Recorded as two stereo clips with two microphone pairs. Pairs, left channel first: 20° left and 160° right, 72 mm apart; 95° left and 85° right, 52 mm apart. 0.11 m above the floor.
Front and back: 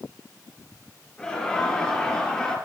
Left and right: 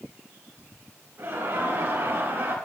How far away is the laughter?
About 4.5 m.